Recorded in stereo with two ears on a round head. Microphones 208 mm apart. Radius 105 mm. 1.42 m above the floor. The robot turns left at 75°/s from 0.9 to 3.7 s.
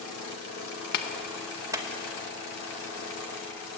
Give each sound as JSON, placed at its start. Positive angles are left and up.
{"t": 0.9, "sound": "a clap", "side_deg": 45, "distance_m": 1.6}